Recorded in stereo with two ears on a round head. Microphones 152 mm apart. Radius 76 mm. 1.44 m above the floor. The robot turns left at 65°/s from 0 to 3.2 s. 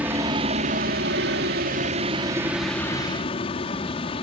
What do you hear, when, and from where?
0.0 s a helicopter: 10° right; by 4.2 s 145° left